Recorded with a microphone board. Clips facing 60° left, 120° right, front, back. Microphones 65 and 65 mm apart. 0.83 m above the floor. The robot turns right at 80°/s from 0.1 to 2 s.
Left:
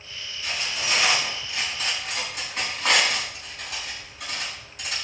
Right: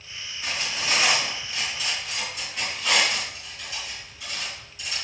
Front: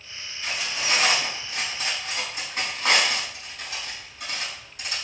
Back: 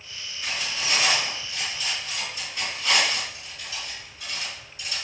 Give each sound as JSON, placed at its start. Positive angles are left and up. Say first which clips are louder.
{"t": 0.4, "sound": "cutlery clinking", "louder": "even, front 1 dB", "azimuth_deg": -95, "distance_m": 5.0}